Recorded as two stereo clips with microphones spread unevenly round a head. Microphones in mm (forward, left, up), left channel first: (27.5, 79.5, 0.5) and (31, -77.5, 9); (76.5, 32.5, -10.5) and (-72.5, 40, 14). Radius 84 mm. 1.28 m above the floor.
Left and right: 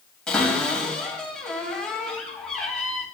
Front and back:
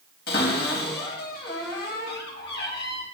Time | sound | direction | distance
0.3 | a cupboard door | 5° left | 3.5 m